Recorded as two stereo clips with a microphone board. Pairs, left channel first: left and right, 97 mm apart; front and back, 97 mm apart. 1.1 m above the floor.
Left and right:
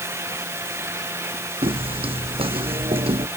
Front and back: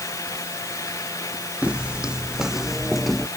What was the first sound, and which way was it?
Footsteps, 100° right.